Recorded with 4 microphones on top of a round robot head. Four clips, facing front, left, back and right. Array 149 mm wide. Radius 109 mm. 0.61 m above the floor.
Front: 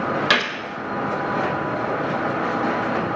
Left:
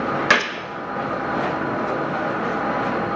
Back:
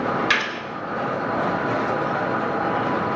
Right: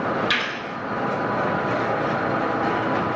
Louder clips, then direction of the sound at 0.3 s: Left 6 dB, front 2 dB; 60° left.